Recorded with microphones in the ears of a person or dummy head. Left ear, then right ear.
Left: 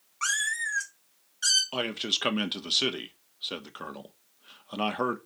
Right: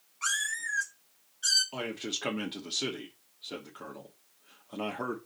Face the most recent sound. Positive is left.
turn(degrees=45)  # may be behind; listen again after turning